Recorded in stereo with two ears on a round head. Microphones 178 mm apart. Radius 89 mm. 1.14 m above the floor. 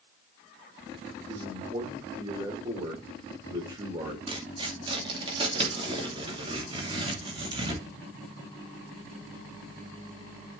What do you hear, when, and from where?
1.3 s a man speaking: 20° right (ahead or behind), 3 m
4.3 s tearing paper: 25° right (ahead or behind), 2.5 m